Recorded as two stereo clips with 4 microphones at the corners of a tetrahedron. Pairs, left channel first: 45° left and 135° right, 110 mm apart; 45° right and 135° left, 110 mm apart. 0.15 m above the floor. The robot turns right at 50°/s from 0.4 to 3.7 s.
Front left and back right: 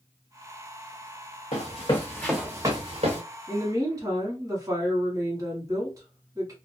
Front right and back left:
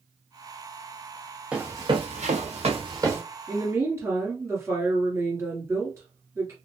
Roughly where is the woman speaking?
Behind.